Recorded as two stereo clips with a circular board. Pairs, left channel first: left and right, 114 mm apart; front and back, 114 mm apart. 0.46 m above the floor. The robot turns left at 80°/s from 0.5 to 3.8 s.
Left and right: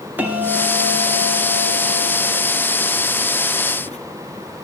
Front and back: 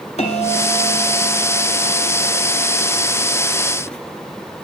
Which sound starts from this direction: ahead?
A bell, at 0.2 s.